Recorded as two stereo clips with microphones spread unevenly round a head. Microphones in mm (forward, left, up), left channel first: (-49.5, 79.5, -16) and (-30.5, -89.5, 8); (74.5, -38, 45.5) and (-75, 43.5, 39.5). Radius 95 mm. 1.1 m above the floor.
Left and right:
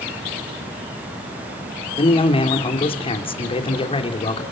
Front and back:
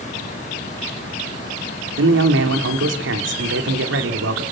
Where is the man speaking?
155° left, 3 m.